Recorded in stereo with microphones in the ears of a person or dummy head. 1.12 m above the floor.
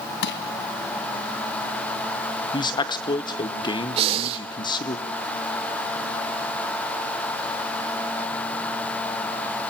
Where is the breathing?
35° right (ahead or behind), 2 m.